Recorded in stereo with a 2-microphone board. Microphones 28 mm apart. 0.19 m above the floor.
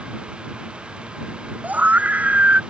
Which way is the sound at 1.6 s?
75° right (ahead or behind).